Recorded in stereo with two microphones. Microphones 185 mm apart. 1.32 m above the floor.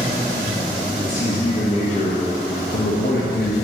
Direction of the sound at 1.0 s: 40° left (ahead or behind).